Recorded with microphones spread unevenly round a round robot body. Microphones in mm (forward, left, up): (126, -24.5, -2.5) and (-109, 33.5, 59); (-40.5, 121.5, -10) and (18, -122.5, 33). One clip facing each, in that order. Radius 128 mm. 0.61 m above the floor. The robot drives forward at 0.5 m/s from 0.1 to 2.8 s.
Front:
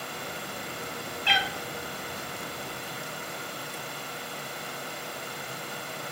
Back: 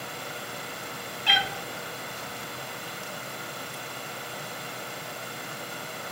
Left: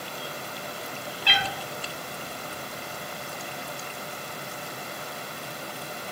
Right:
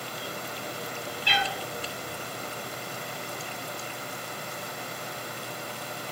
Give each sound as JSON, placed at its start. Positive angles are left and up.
{"t": 1.2, "sound": "a cat meowing", "azimuth_deg": 110, "distance_m": 0.7}